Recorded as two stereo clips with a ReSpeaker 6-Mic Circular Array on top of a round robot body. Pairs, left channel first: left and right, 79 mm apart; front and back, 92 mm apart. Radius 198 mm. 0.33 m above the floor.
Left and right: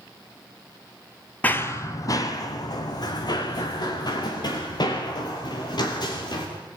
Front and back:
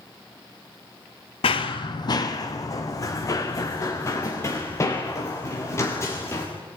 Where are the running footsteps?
20° left, 0.6 m; by 6.5 s 60° left, 5.5 m.